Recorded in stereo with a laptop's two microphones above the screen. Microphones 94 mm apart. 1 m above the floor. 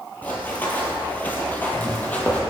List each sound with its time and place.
0.2 s running footsteps: 20° left (ahead or behind), 1.0 m; by 2.4 s 15° left (ahead or behind), 1.3 m